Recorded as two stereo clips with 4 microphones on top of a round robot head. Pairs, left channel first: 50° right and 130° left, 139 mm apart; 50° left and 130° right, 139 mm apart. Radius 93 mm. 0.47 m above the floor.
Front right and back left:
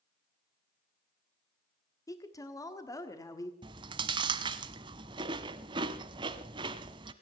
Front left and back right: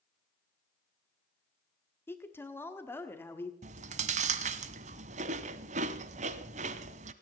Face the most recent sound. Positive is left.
turn(degrees=-170)